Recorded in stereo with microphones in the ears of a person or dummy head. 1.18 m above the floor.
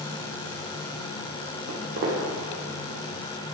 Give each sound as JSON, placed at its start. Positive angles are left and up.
{"t": 1.7, "sound": "footsteps", "side_deg": -60, "distance_m": 3.0}